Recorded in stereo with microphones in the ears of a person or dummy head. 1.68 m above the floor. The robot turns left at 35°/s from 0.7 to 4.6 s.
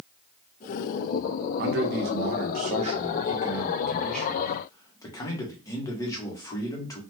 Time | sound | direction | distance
1.6 | a man speaking | 95° right | 0.7 m